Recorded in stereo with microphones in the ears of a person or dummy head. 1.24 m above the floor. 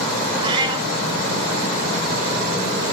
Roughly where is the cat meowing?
Right.